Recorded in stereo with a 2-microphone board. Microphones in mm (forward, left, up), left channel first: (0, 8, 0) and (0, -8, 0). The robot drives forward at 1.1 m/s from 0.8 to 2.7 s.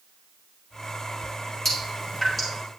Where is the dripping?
25° left (ahead or behind), 3 m; by 2.5 s 20° left (ahead or behind), 4 m.